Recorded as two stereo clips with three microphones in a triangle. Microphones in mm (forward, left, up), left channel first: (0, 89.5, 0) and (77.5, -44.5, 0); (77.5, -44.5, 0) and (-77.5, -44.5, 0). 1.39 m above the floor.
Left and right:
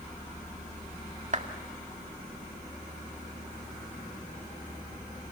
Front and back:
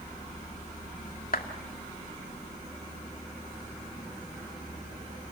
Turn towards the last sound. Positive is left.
turn(degrees=-20)